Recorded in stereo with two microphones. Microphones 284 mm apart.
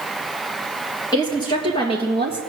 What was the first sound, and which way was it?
A woman speaking, 15° left (ahead or behind).